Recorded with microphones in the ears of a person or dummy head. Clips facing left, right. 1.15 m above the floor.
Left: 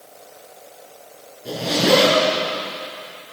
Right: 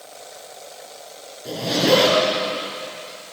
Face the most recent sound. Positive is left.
turn(degrees=0)  # may be behind; listen again after turning